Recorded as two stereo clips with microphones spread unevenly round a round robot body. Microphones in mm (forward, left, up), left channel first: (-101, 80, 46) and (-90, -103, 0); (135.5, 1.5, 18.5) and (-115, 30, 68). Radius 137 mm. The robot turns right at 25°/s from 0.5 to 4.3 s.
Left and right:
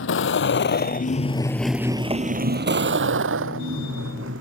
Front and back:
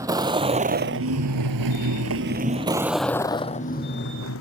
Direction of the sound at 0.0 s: 95° left.